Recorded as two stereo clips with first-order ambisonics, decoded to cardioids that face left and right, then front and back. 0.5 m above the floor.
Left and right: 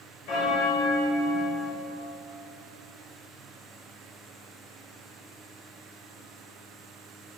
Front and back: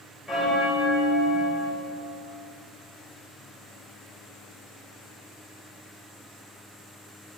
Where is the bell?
95° left, 2 m.